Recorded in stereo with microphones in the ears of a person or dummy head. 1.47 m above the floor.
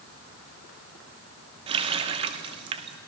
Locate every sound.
1.7 s a running tap: 30° right (ahead or behind), 0.7 m